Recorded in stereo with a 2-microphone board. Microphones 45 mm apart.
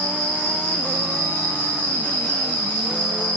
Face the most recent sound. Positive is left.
turn(degrees=40)  # may be behind; listen again after turning